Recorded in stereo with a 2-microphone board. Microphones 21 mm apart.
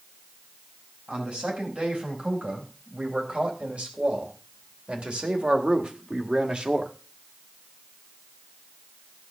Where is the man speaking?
85° right, 5 m; by 6.9 s 55° right (ahead or behind), 1.6 m.